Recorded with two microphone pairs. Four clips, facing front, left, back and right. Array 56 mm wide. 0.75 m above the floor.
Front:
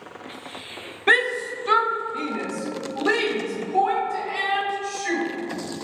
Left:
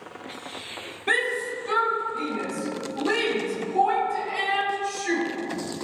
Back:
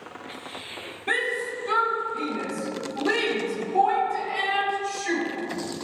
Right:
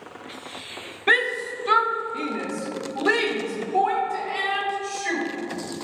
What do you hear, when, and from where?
1.1 s a shout: 30° right, 0.8 m; by 5.2 s 65° right, 3.5 m